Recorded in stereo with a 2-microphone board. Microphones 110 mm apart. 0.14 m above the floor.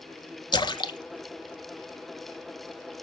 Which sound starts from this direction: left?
A splash, at 0.5 s.